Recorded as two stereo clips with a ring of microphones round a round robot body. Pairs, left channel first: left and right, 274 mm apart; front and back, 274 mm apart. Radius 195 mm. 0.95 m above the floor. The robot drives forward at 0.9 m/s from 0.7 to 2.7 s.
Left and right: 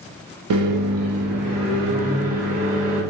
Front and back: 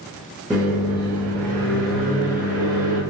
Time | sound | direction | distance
0.5 | a microwave | 90° right | 0.5 m